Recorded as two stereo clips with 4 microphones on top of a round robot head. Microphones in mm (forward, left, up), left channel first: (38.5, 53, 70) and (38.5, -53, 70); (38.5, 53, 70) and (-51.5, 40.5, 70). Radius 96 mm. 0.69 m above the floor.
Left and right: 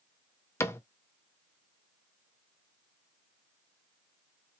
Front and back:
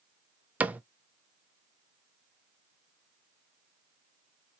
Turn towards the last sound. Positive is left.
turn(degrees=130)